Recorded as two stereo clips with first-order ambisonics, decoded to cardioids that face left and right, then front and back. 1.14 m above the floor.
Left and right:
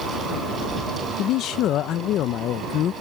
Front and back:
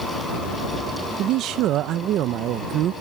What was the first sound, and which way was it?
A man speaking, 135° left.